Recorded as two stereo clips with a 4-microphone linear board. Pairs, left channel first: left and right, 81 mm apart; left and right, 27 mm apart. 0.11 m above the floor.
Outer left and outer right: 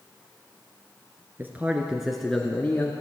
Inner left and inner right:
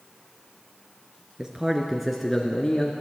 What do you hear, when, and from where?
1.4 s a man speaking: 25° right (ahead or behind), 1.5 m; by 2.9 s 30° left (ahead or behind), 1.4 m